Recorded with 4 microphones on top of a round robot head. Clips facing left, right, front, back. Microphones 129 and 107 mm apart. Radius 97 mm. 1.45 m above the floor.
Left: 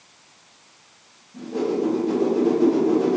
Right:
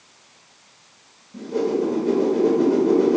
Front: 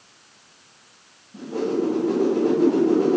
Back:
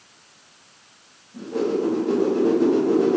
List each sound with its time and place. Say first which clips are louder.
1.3 s a whoosh: right 2 dB, back 1 dB; 80° right, 0.9 m